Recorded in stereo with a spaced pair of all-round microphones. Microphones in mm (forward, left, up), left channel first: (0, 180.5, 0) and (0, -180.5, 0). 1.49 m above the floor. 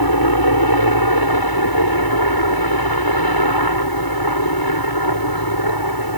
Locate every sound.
0.0 s a helicopter: 75° left (ahead or behind)